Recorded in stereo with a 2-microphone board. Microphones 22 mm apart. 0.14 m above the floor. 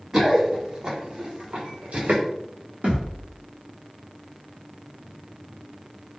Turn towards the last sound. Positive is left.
turn(degrees=-55)  # may be behind; listen again after turning